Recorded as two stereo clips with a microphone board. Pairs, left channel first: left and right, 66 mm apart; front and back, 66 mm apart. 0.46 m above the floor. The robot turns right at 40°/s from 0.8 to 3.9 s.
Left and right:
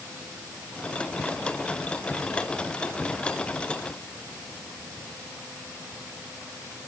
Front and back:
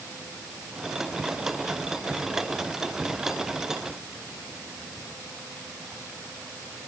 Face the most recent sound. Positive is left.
No sound to turn to.